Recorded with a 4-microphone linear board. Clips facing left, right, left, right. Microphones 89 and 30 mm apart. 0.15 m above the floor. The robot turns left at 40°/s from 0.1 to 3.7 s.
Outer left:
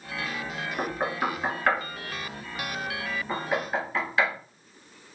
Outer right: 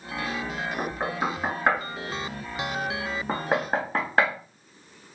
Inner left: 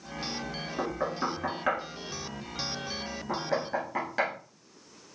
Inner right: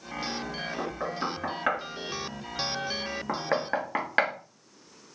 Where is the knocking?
5° left (ahead or behind), 1.1 m; by 4.3 s 45° right (ahead or behind), 1.1 m.